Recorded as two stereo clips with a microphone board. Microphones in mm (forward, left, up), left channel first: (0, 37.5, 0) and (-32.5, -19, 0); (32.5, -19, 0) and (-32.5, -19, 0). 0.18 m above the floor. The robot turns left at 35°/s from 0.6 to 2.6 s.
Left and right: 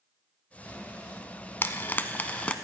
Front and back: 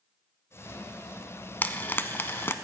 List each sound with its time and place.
1.6 s frying: 40° left, 0.6 m; by 2.5 s 5° left, 0.6 m